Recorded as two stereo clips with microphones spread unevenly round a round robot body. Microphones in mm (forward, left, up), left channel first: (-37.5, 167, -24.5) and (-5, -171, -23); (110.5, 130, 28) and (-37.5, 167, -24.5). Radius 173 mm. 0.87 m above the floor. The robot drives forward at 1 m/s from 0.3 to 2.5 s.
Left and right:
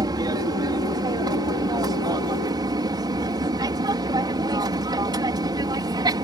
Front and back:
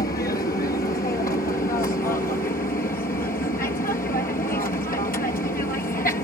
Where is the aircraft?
10° right.